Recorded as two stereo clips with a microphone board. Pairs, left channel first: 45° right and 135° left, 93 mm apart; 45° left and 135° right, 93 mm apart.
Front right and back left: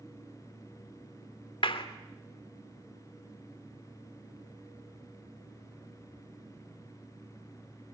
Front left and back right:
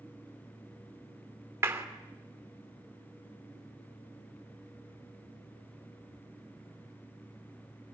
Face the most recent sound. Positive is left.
turn(degrees=-70)